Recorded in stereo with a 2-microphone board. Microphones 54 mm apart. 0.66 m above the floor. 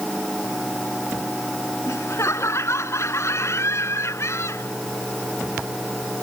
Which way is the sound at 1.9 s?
55° left (ahead or behind).